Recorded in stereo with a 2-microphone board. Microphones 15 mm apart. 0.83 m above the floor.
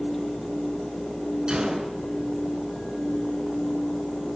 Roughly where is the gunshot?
Right.